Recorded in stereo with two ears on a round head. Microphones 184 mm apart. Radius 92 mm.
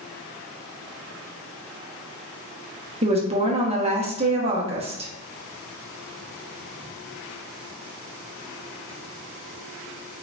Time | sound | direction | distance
3.0 | a woman speaking | 25° right (ahead or behind) | 0.5 m